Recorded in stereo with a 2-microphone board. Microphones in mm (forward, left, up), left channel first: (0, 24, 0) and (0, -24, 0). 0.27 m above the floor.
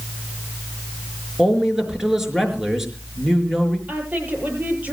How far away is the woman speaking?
About 7.5 m.